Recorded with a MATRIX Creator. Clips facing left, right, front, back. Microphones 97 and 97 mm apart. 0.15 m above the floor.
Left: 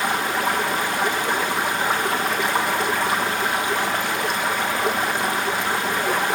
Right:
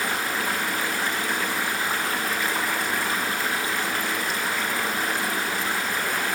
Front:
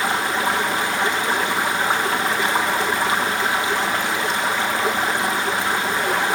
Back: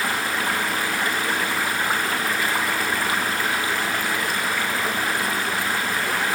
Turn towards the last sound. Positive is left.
turn(degrees=70)